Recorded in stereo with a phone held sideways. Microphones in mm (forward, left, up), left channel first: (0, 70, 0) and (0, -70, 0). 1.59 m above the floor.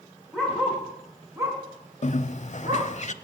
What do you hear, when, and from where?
0.3 s a dog barking: 5° right (ahead or behind), 4.5 m; by 2.9 s 55° right (ahead or behind), 4.5 m
2.0 s a bird: 55° left (ahead or behind), 0.6 m